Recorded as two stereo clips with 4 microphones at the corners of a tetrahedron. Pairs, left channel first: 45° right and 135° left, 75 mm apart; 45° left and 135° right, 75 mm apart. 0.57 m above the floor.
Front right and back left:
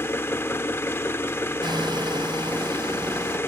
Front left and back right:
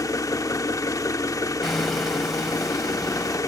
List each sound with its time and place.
0.0 s an engine running: 10° left, 0.9 m
1.6 s hammering: 135° left, 2 m